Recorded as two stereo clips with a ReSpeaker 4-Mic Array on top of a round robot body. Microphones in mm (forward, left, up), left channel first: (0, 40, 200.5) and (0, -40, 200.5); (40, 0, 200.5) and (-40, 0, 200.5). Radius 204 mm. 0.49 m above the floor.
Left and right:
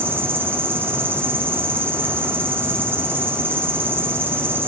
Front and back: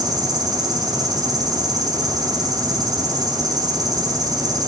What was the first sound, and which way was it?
An insect, 150° right.